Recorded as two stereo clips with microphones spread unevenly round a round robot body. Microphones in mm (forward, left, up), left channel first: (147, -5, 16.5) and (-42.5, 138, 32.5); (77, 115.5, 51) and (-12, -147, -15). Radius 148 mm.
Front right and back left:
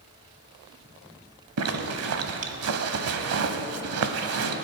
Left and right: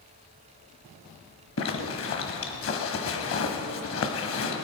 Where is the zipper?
120° left, 1.2 m.